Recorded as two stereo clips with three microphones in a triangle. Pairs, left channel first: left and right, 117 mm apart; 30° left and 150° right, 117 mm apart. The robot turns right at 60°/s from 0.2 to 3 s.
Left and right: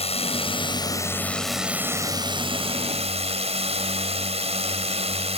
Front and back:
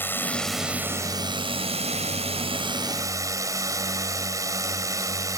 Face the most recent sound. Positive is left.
turn(degrees=-90)